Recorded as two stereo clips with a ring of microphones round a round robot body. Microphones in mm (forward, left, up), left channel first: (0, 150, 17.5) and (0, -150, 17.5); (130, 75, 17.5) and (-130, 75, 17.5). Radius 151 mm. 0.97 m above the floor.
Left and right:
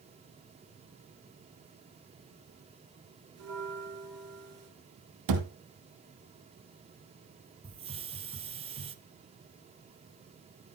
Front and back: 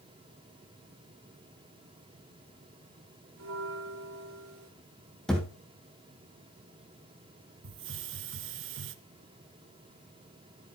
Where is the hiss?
155° right, 1.1 m.